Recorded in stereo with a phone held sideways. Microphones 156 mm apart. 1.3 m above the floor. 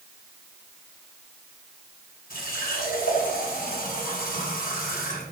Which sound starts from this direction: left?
A running tap, at 2.3 s.